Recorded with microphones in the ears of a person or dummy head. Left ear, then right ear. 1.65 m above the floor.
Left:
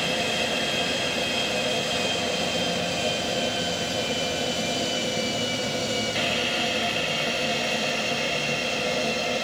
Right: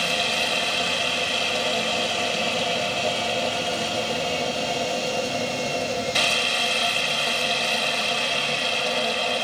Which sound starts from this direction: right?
A machine running, at 0.0 s.